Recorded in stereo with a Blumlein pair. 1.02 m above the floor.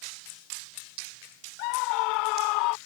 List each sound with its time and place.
1.6 s a scream: 45° left; by 2.8 s 40° left